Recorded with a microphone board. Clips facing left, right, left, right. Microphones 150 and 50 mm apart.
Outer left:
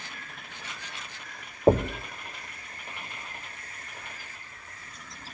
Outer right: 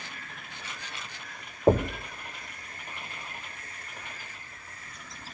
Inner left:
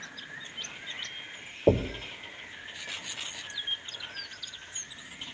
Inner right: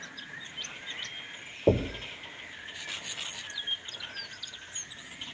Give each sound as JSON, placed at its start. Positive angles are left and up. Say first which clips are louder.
{"t": 1.7, "sound": "knocking", "louder": "outer left 1 dB, inner left 1 dB", "side_deg": 10, "distance_m": 0.6}